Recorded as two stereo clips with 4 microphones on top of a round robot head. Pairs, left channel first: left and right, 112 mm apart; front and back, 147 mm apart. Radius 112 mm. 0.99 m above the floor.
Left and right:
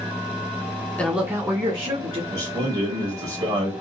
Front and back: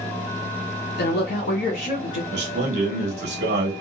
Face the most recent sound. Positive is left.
turn(degrees=-155)